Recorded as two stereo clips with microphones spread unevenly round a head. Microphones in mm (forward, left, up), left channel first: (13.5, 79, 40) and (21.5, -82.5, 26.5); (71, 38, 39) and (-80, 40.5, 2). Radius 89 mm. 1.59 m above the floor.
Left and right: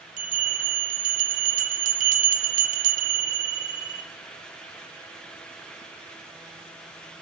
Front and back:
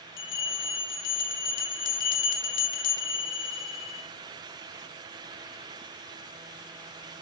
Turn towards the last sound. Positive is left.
turn(degrees=-45)